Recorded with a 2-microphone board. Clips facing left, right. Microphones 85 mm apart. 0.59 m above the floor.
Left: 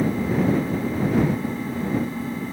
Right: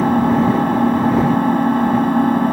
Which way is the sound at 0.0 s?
70° right (ahead or behind).